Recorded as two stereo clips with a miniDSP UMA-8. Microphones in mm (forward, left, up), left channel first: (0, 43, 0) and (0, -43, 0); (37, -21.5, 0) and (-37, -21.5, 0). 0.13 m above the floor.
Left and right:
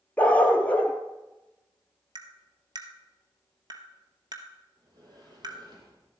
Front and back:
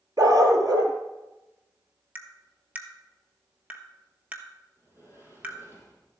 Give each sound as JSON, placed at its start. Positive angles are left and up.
{"t": 0.2, "sound": "a dog barking", "azimuth_deg": 160, "distance_m": 1.4}
{"t": 2.1, "sound": "tapping", "azimuth_deg": -110, "distance_m": 1.0}
{"t": 4.8, "sound": "a sliding door", "azimuth_deg": -125, "distance_m": 3.0}